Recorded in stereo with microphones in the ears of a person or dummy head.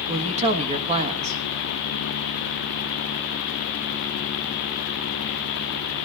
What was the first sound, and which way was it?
A woman speaking, 40° right (ahead or behind).